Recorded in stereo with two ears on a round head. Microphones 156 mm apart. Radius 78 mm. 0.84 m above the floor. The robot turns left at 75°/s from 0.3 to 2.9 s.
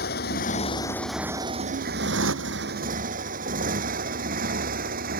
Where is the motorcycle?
60° left (ahead or behind); by 5.2 s 55° right (ahead or behind).